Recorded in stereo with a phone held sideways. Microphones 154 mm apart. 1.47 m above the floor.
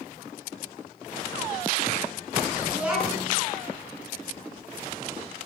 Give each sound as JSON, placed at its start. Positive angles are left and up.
{"t": 2.7, "sound": "a child speaking", "side_deg": -10, "distance_m": 9.5}